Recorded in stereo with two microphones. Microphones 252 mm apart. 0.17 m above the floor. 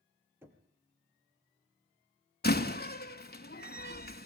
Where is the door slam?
40° left (ahead or behind), 1.4 m.